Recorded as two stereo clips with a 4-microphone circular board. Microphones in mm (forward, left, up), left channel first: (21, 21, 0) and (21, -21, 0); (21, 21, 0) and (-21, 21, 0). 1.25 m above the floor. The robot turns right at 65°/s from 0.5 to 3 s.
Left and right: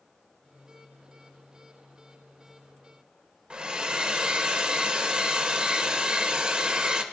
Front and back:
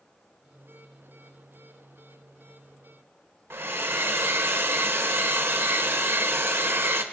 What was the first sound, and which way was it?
A hair dryer, 155° right.